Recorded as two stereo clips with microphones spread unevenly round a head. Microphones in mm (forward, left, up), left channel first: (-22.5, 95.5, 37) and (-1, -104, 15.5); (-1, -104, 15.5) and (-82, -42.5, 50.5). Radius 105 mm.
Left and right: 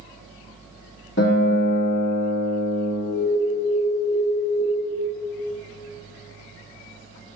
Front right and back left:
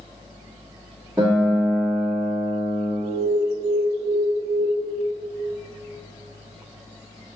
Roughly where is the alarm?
Behind left.